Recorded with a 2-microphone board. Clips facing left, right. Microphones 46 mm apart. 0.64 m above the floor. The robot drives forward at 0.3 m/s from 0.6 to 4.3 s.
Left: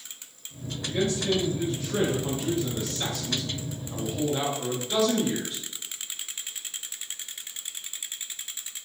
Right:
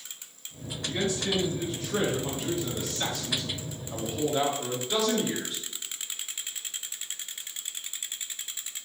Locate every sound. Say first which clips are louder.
0.8 s a man speaking: left 3 dB; centre (ahead or behind), 1.1 m